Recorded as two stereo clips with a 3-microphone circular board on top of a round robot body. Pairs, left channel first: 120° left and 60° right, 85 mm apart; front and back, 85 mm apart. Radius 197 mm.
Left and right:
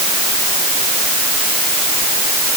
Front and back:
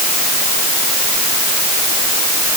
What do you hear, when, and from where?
Only background noise.